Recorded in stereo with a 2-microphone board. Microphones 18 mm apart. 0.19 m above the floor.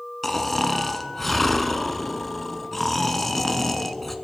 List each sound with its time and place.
0.2 s snoring: 15° left (ahead or behind), 1.1 m